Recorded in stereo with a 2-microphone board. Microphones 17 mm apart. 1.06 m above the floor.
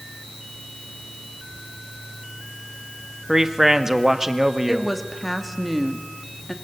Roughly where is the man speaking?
Right.